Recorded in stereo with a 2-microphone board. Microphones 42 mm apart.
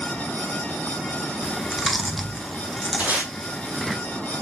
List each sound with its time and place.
1.4 s chewing: centre (ahead or behind), 0.6 m
3.0 s tape being pulled: 40° right (ahead or behind), 1.5 m